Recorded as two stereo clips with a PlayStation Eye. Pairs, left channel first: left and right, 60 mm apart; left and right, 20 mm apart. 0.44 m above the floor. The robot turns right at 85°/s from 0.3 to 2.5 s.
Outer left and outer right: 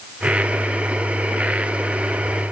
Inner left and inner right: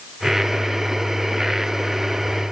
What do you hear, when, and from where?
Only background noise.